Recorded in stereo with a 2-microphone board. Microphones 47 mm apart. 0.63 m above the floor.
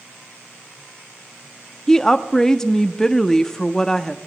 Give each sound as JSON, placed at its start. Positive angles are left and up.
{"t": 1.9, "sound": "a woman speaking", "side_deg": 10, "distance_m": 0.7}